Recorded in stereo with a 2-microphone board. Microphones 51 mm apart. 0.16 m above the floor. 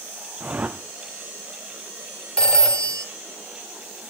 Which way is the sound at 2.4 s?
20° left (ahead or behind).